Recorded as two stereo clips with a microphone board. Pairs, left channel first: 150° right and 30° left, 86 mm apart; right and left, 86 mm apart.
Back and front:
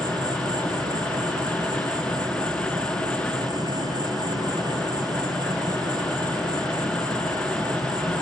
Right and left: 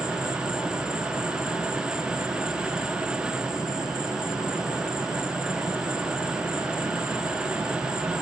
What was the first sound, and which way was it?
An insect, 10° left.